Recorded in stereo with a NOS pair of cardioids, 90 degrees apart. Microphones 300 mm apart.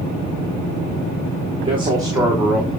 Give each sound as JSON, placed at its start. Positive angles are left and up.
{"t": 1.6, "sound": "a man speaking", "azimuth_deg": -20, "distance_m": 3.0}